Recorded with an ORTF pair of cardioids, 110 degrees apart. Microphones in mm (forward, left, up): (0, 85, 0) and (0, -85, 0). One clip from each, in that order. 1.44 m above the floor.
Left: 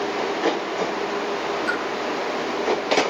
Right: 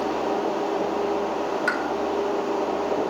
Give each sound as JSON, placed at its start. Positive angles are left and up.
{"t": 1.7, "sound": "a pop", "azimuth_deg": -35, "distance_m": 7.0}